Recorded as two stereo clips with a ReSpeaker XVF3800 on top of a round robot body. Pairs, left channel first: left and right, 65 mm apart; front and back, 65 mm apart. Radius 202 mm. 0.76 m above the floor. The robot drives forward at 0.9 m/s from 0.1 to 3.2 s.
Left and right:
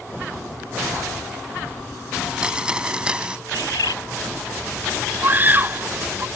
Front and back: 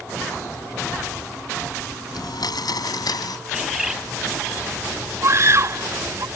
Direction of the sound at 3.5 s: 95° left.